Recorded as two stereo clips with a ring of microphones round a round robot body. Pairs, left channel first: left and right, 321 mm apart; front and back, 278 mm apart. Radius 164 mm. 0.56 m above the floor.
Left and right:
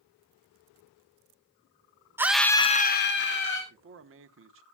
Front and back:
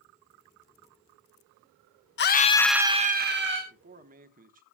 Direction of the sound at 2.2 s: 10° right.